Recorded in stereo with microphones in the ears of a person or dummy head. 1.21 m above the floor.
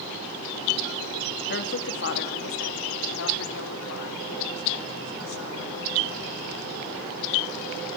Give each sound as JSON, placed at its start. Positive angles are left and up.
{"t": 1.5, "sound": "a woman speaking", "side_deg": 55, "distance_m": 2.5}